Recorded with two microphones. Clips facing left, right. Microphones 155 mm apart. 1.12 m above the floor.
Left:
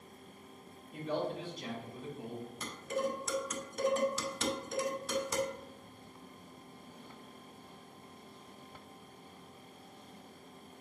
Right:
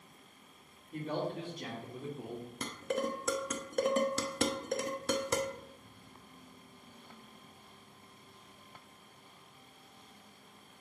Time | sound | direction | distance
0.9 | a man speaking | 50° right (ahead or behind) | 3 m
2.6 | dishes clattering | 65° right (ahead or behind) | 0.9 m